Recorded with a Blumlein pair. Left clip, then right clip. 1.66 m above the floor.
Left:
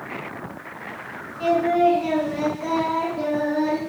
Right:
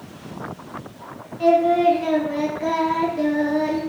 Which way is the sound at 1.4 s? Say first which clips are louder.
Right 3 dB; 10° right.